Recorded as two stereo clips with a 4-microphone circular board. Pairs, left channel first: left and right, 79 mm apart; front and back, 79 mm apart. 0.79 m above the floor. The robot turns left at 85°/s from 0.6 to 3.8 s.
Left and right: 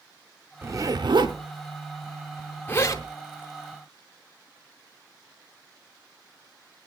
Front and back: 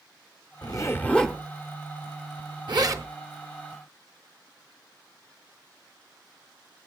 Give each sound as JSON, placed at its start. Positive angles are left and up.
{"t": 0.6, "sound": "a zipper", "azimuth_deg": -30, "distance_m": 0.8}